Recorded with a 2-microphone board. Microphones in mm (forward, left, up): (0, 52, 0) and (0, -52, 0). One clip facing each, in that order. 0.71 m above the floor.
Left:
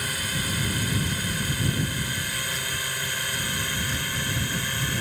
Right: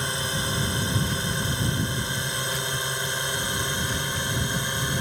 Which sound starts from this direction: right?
A drone, at 0.0 s.